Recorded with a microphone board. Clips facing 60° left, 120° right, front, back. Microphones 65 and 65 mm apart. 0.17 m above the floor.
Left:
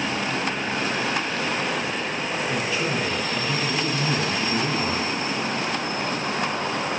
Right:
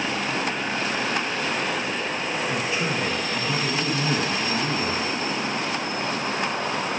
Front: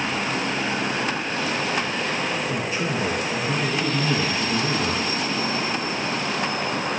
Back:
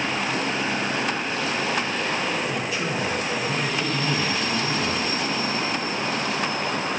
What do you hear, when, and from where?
2.5 s a man speaking: 55° right, 4.5 m